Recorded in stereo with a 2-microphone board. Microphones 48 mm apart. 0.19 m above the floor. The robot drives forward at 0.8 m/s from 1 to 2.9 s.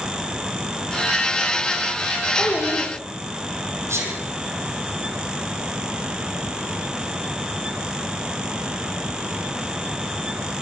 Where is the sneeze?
75° right (ahead or behind), 6.5 m.